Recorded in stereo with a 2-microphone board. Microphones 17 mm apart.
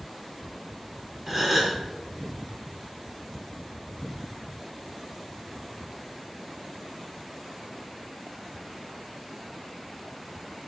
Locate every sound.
1.3 s a gasp: 15° right (ahead or behind), 4.5 m